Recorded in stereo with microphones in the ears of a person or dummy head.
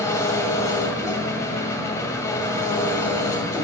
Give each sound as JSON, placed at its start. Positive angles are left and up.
{"t": 0.0, "sound": "an engine running", "side_deg": 15, "distance_m": 1.8}